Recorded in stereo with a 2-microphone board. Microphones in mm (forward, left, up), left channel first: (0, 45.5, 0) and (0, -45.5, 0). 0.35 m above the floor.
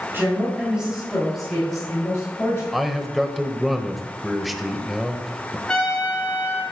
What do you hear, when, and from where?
0.1 s a woman speaking: 25° right (ahead or behind), 2.5 m; by 2.6 s 15° left (ahead or behind), 5 m
2.7 s a man speaking: centre (ahead or behind), 1.2 m
5.7 s a trumpet: 10° left (ahead or behind), 5 m